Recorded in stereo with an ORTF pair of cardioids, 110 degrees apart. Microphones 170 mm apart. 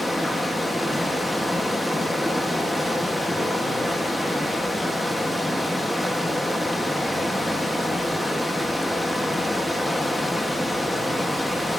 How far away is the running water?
About 1.1 m.